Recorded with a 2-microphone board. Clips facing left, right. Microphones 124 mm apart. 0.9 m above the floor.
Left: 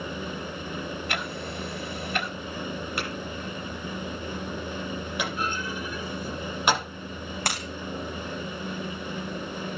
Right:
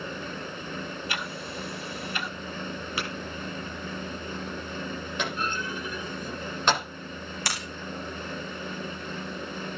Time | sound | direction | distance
1.1 | ticking | 65° left (ahead or behind) | 2.5 m
3.0 | tapping | centre (ahead or behind) | 9 m
5.2 | a clunk | 10° left (ahead or behind) | 9 m
7.5 | breaking glass | 50° left (ahead or behind) | 6 m